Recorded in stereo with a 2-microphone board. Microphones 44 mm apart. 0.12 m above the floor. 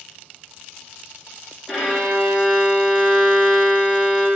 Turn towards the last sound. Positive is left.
turn(degrees=0)  # may be behind; listen again after turning